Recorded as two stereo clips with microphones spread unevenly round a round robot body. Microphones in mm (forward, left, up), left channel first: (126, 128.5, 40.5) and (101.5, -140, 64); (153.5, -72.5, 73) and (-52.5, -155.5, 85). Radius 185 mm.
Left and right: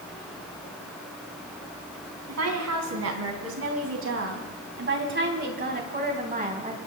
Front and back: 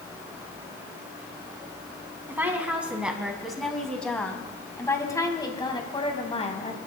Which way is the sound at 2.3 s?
80° right.